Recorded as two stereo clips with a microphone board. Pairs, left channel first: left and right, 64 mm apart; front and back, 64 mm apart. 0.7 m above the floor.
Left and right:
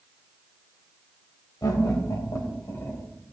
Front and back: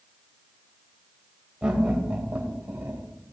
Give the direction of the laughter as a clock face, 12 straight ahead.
9 o'clock.